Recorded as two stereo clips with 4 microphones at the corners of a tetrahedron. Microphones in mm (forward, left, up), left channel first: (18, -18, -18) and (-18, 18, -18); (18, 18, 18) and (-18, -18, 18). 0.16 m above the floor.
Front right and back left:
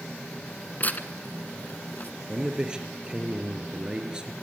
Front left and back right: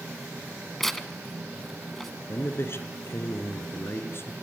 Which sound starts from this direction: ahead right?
Tearing paper, at 0.8 s.